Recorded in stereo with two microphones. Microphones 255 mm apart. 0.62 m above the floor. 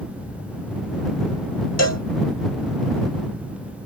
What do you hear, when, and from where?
1.8 s a cowbell: 80° left